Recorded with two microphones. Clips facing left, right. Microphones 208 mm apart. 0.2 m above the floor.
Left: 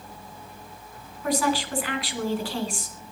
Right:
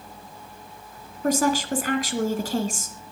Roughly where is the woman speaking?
Right.